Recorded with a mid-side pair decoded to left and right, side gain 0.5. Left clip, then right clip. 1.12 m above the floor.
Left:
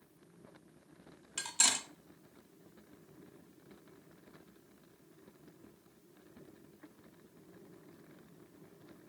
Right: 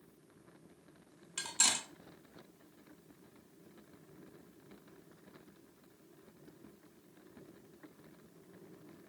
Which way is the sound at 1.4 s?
15° left.